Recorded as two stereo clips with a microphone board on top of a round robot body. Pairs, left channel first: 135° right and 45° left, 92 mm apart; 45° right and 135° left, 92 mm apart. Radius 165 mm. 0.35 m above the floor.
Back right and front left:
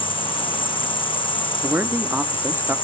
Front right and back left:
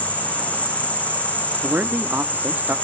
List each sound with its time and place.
0.0 s an insect: 120° right, 4 m
1.6 s a man speaking: 85° left, 1.4 m